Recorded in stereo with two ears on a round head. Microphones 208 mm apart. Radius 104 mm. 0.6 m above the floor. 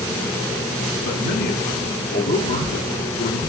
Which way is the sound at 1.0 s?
45° left (ahead or behind).